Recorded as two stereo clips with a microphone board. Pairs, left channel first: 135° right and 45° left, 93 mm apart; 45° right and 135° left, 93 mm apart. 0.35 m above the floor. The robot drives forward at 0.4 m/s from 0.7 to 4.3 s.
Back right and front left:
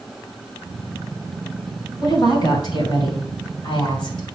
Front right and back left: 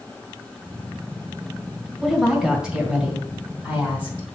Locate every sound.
2.0 s a woman speaking: 140° right, 2 m; by 4.3 s 155° right, 2.5 m